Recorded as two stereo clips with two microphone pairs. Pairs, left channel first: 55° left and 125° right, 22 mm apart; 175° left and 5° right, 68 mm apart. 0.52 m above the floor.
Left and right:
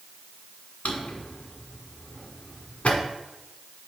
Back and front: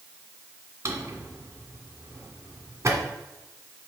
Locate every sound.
0.8 s a drawer: 35° left, 1.4 m